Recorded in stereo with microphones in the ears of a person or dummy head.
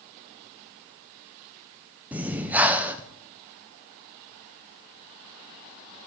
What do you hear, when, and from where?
2.1 s breathing: 10° right (ahead or behind), 0.6 m